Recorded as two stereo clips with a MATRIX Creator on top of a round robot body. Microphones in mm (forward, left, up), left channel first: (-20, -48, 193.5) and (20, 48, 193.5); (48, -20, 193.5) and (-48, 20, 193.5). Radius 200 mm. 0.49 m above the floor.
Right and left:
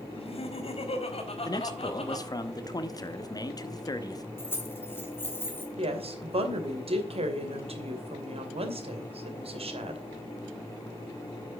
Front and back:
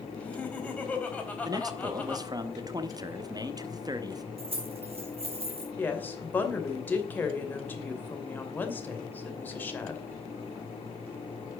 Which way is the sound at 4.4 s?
Straight behind.